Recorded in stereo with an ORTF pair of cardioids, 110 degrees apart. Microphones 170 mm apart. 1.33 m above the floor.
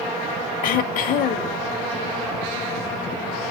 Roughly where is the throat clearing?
Ahead left.